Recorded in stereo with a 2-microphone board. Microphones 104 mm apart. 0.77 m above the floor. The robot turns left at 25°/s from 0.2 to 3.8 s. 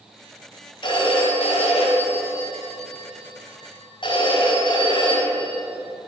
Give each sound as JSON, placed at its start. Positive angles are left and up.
{"t": 0.8, "sound": "a phone ringing", "azimuth_deg": 130, "distance_m": 3.5}